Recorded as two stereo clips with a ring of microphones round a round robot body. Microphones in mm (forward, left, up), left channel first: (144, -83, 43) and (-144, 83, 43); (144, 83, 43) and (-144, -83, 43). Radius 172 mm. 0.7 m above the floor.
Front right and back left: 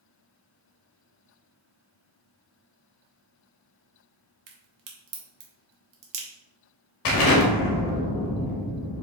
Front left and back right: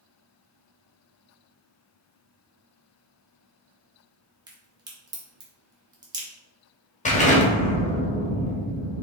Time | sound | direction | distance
4.5 | a crack | 135° left | 1.2 m
7.0 | an explosion | 35° right | 1.2 m